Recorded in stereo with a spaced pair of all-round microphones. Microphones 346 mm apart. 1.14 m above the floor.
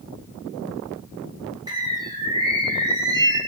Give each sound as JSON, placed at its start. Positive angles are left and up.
{"t": 1.7, "sound": "a bird", "side_deg": -10, "distance_m": 3.0}